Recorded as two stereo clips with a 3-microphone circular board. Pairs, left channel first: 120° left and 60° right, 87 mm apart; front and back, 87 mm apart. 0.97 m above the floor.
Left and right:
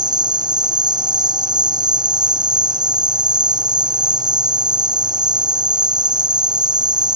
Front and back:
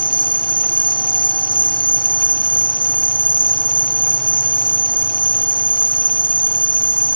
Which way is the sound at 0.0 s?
20° right.